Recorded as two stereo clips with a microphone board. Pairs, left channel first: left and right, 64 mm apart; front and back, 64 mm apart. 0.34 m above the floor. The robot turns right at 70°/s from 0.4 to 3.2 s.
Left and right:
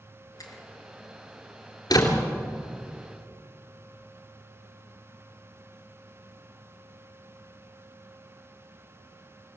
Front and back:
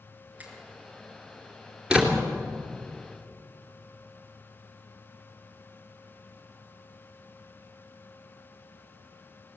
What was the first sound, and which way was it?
A finger snap, 115° left.